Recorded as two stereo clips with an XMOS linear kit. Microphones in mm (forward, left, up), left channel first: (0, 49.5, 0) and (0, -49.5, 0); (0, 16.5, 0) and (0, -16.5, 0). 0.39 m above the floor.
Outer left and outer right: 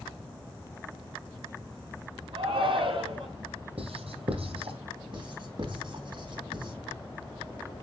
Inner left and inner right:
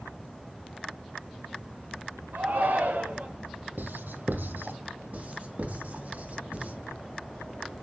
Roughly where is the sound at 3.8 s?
Right.